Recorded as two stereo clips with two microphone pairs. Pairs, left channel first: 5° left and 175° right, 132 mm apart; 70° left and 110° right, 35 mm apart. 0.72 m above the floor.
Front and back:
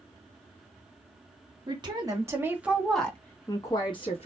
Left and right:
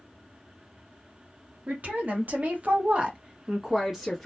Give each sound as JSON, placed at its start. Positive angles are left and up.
{"t": 1.7, "sound": "a woman speaking", "azimuth_deg": -130, "distance_m": 1.2}